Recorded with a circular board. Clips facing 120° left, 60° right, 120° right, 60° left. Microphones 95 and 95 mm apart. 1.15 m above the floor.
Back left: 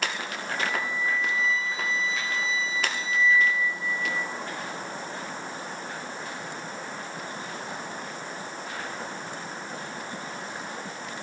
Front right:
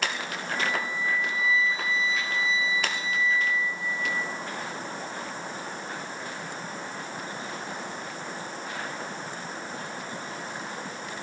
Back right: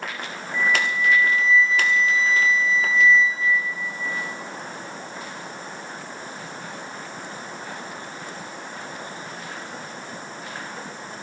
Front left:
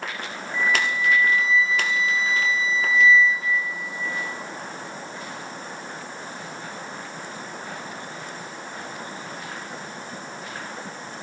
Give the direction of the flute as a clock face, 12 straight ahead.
7 o'clock.